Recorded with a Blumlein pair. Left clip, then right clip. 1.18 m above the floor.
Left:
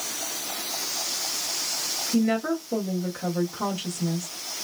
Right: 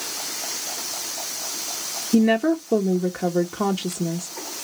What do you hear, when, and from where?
2.1 s a woman speaking: 35° right, 1.0 m